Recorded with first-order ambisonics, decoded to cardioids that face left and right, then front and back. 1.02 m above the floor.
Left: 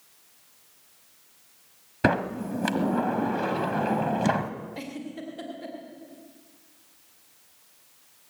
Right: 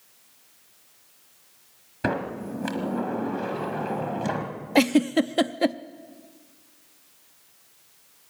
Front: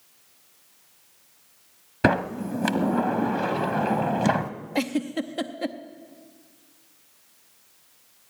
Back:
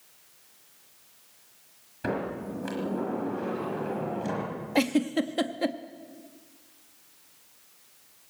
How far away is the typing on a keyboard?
No typing on a keyboard in this recording.